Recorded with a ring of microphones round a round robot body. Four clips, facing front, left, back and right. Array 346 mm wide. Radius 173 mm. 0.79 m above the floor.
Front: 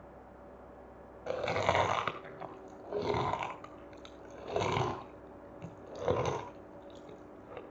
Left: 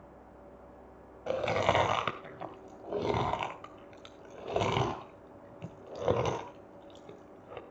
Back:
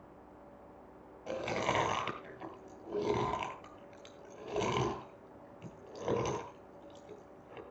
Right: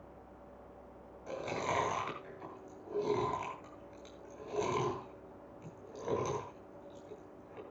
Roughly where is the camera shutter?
I don't hear a camera shutter.